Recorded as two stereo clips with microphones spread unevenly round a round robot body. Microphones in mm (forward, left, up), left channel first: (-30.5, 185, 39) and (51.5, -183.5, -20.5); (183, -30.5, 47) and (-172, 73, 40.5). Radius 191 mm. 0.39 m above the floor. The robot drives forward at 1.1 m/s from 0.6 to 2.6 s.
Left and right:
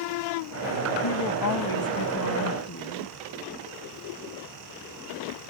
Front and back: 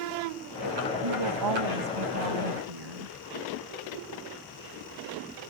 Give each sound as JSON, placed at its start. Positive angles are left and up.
{"t": 1.0, "sound": "a woman speaking", "azimuth_deg": 140}